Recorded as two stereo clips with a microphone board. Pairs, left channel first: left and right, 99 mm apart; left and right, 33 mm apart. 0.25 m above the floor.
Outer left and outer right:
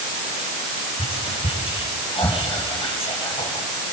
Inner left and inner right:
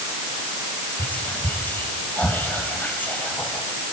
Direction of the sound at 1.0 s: 80° left.